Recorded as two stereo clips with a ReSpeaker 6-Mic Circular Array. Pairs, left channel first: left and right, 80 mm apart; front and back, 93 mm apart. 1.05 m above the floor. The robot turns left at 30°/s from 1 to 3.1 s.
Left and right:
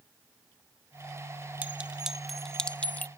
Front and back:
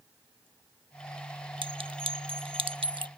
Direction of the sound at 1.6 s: 160° right.